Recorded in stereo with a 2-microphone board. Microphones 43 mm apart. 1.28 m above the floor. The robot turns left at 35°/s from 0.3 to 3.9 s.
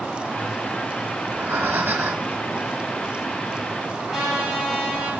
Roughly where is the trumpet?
Centre.